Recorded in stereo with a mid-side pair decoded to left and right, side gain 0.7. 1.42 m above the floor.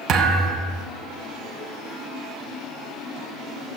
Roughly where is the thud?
Ahead right.